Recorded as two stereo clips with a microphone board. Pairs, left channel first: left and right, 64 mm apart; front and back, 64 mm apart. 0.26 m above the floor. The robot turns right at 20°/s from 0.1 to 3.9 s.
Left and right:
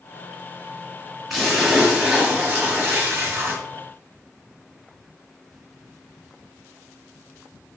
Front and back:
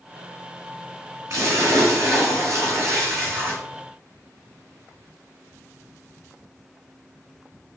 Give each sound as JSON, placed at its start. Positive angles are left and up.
{"t": 1.3, "sound": "a splash", "azimuth_deg": 180, "distance_m": 1.8}